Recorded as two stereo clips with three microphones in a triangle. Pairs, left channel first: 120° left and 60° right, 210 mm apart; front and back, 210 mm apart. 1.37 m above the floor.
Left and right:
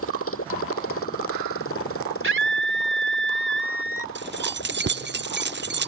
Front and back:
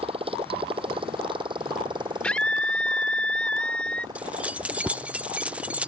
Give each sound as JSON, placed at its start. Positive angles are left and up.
{"t": 0.0, "sound": "a motorcycle", "azimuth_deg": 115}
{"t": 2.2, "sound": "a scream", "azimuth_deg": -85}
{"t": 4.2, "sound": "keys jangling", "azimuth_deg": -95}